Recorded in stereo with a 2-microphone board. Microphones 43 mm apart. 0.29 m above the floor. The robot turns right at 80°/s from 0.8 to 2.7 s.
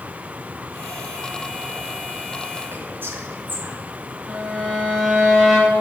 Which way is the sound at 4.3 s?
5° right (ahead or behind).